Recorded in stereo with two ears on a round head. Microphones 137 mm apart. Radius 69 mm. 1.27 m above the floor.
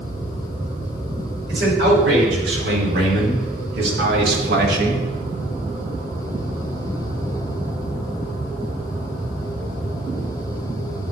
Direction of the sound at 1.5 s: 80° right.